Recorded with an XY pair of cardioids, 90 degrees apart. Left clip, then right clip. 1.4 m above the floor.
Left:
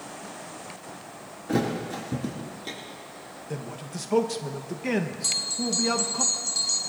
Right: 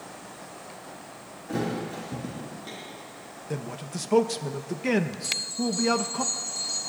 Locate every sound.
1.5 s a thud: 50° left, 4.5 m
3.5 s a man speaking: 20° right, 1.0 m
5.2 s a bell: 60° left, 3.5 m